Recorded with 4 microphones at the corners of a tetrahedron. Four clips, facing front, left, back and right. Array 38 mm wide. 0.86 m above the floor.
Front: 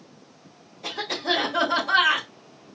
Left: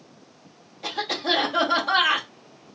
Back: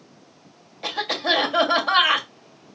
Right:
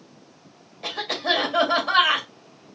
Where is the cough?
170° right, 1.8 m.